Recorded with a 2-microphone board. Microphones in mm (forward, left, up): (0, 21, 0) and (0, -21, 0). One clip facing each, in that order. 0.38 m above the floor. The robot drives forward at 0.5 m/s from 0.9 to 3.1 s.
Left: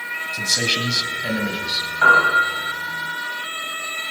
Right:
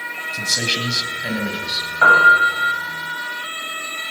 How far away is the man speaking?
About 2 m.